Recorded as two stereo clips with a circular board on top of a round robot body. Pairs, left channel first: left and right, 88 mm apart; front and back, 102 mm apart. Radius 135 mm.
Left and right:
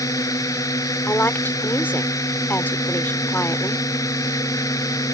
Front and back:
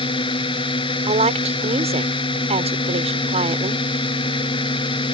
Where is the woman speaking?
160° left.